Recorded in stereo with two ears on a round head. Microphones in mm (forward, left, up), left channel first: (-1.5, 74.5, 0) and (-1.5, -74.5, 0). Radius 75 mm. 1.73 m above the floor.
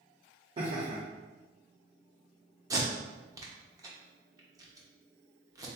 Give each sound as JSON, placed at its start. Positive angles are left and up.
{"t": 0.6, "sound": "laughter", "side_deg": -30, "distance_m": 0.9}
{"t": 2.7, "sound": "tape being pulled", "side_deg": -20, "distance_m": 0.7}